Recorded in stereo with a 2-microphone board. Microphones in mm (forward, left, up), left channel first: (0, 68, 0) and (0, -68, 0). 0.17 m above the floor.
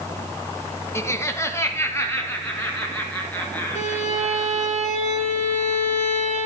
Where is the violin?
60° left (ahead or behind), 3 m.